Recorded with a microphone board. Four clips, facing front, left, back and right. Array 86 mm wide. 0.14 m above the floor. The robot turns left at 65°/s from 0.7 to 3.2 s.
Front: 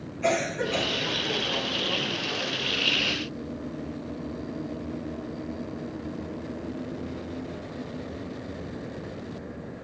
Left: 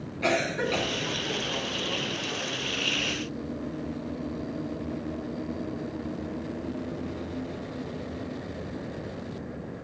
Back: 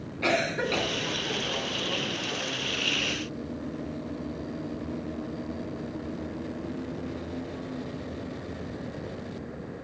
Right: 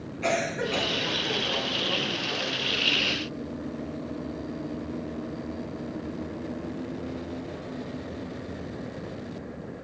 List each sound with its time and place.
0.2 s a cough: 155° left, 1.6 m; by 0.9 s 145° left, 1.6 m